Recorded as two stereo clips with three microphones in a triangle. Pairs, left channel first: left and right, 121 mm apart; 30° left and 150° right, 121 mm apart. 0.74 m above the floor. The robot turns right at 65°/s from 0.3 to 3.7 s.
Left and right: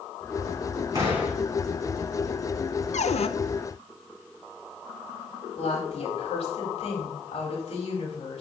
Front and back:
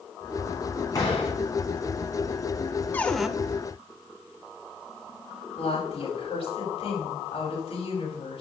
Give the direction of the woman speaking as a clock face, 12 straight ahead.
10 o'clock.